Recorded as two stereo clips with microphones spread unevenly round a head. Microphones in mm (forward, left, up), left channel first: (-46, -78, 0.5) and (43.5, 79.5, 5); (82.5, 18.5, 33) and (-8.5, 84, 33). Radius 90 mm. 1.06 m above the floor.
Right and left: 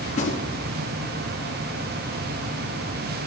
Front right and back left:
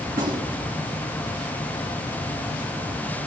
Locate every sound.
0.1 s a gunshot: 170° right, 4 m